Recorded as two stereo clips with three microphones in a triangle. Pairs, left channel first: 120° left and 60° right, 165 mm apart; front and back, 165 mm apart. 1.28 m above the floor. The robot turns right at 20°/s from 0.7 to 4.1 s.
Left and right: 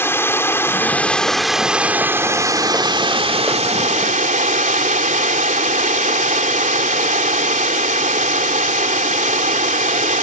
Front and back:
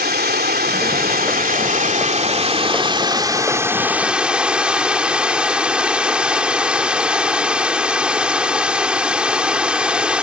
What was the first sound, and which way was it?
Running water, 165° right.